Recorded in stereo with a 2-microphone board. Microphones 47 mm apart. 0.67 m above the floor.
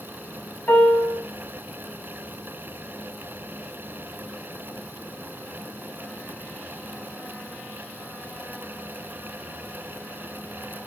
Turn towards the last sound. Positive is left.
turn(degrees=40)  # may be behind; listen again after turning